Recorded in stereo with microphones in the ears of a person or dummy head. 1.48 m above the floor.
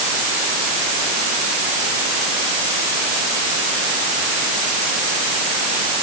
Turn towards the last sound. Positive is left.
No sound to turn to.